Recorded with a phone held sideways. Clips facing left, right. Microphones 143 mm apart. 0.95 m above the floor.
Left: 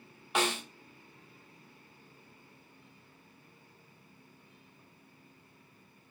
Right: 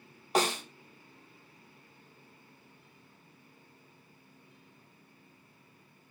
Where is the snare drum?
35° right (ahead or behind), 0.6 m.